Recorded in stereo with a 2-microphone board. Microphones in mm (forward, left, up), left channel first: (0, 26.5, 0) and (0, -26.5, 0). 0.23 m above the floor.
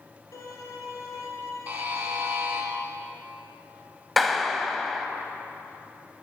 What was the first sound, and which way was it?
A violin, 65° left (ahead or behind).